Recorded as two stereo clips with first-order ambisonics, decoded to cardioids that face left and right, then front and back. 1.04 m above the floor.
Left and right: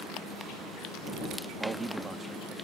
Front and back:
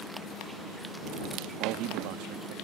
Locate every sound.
1.6 s a man speaking: 160° right